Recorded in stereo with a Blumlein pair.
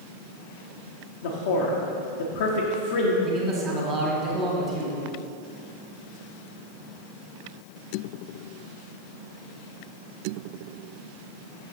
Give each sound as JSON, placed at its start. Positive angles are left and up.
{"t": 1.2, "sound": "a man speaking", "azimuth_deg": 55, "distance_m": 0.8}
{"t": 3.2, "sound": "a man speaking", "azimuth_deg": -25, "distance_m": 1.5}